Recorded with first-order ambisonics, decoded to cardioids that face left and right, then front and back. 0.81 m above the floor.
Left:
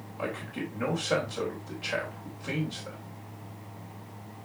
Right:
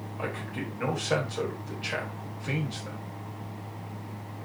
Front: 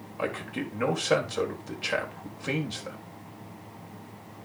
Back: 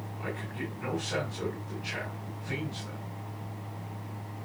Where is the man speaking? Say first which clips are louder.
Even, front 6 dB; 5° right, 3.5 m.